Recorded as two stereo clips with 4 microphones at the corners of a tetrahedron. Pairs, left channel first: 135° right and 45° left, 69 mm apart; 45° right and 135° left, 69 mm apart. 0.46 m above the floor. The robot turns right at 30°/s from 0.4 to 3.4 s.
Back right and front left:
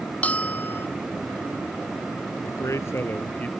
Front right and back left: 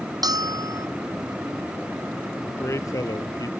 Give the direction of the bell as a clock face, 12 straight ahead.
7 o'clock.